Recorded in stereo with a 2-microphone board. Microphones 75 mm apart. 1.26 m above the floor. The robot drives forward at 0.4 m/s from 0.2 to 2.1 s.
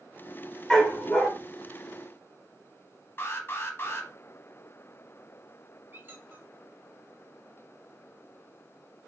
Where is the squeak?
30° right (ahead or behind), 0.6 m.